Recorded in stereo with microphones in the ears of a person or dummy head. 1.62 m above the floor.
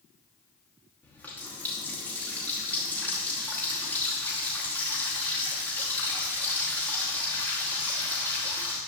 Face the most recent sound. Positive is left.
turn(degrees=10)  # may be behind; listen again after turning